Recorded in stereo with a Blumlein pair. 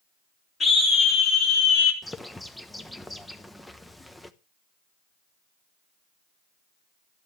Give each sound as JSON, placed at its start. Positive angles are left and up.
{"t": 0.6, "sound": "a scream", "azimuth_deg": 20, "distance_m": 1.2}
{"t": 2.0, "sound": "a bird", "azimuth_deg": 5, "distance_m": 0.9}